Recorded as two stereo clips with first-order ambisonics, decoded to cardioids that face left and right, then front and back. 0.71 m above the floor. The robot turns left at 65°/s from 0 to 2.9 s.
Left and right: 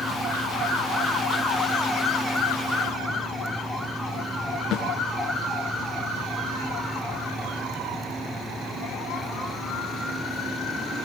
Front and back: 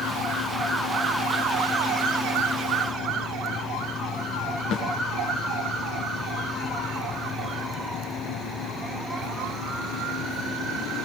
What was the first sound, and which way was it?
A snare drum, 40° left.